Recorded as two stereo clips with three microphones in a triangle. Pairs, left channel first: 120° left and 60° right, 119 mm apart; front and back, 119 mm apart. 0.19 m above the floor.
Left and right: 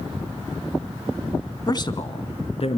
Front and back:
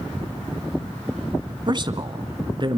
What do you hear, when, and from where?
1.7 s a man speaking: 160° left, 1.5 m; by 2.8 s 140° left, 2 m